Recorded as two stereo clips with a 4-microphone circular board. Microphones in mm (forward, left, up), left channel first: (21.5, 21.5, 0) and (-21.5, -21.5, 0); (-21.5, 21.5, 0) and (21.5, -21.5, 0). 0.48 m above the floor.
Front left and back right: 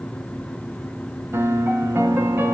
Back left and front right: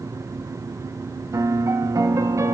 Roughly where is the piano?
Right.